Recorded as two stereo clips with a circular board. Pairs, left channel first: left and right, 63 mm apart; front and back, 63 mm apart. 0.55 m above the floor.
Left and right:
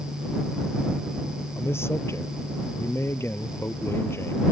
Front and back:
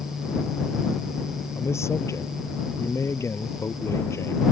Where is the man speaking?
40° left.